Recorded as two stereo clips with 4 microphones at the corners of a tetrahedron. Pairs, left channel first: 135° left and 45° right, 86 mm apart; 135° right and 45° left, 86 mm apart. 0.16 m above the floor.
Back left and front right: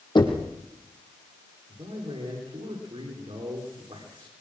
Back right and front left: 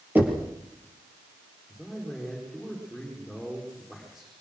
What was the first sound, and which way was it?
Knocking, 115° left.